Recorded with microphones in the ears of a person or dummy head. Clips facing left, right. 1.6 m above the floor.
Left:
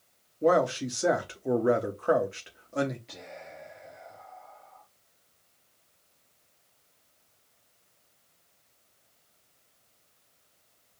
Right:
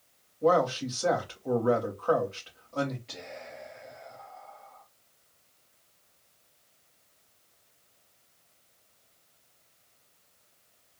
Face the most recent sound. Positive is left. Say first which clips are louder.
# right 1 dB
turn(degrees=-5)  # may be behind; listen again after turning